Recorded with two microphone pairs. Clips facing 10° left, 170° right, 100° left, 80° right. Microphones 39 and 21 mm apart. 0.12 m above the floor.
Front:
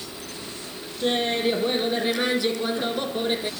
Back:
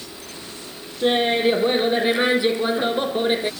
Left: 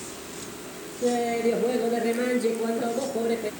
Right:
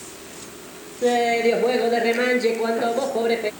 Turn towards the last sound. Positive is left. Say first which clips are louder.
# back 5 dB, right 5 dB
turn(degrees=-105)